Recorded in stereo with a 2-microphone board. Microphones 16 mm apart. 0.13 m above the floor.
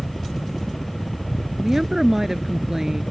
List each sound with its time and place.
0.0 s a helicopter: 10° left (ahead or behind); by 3.1 s 20° left (ahead or behind)
1.6 s a woman speaking: 25° right (ahead or behind)